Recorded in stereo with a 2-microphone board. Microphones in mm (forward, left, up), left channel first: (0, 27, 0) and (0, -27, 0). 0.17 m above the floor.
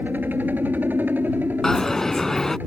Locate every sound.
0.0 s a helicopter: 35° right (ahead or behind)
1.6 s a dropped coin: 10° left (ahead or behind)